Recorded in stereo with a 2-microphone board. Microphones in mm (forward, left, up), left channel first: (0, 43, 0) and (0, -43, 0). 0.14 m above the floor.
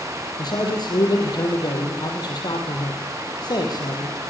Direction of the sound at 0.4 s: 50° left (ahead or behind).